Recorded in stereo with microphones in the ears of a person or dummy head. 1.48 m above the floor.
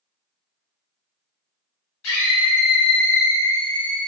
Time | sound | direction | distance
2.0 | a scream | 70° left (ahead or behind) | 1.4 m